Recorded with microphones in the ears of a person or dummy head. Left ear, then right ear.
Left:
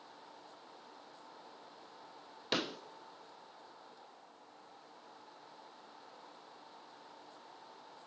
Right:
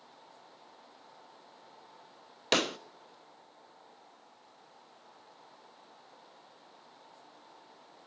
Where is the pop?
30° right (ahead or behind), 0.5 m.